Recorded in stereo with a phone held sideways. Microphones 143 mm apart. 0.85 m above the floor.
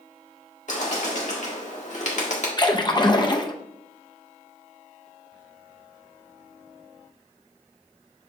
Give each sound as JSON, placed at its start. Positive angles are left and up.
{"t": 0.7, "sound": "a bird", "side_deg": 55, "distance_m": 1.6}
{"t": 2.6, "sound": "a splash", "side_deg": 30, "distance_m": 0.6}